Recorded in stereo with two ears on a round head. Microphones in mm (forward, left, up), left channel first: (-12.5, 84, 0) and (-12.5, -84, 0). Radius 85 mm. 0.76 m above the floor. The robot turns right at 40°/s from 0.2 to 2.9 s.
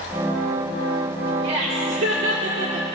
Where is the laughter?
110° right, 2.0 m; by 2.9 s 50° right, 2.0 m.